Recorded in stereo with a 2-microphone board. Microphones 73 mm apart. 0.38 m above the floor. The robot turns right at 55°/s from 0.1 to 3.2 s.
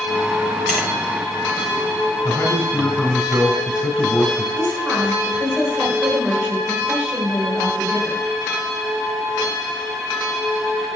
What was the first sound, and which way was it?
Tapping, 5° left (ahead or behind).